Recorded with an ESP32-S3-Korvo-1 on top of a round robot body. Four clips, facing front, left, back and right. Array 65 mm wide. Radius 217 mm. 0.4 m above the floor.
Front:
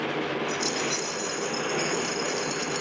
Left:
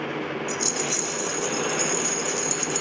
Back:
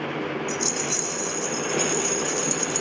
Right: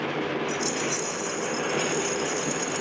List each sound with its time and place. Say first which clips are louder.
0.5 s a rattle: right 1 dB, even; 55° left, 3 m